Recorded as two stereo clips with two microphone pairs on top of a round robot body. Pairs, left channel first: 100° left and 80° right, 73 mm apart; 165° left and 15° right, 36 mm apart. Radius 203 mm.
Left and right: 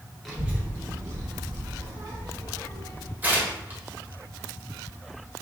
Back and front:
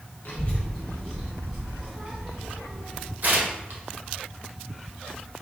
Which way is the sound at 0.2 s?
170° right.